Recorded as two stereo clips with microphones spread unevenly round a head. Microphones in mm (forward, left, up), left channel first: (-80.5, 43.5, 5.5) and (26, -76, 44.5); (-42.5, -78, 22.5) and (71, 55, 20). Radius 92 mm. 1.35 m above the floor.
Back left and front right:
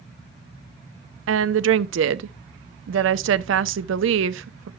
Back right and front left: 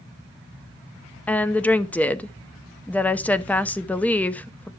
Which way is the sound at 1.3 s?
50° right.